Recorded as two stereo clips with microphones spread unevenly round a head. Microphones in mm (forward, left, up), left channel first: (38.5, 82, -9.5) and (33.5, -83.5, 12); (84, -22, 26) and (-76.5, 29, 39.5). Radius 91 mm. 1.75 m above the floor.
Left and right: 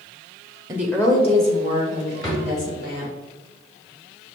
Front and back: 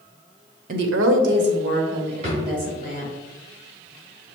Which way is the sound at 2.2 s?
160° left.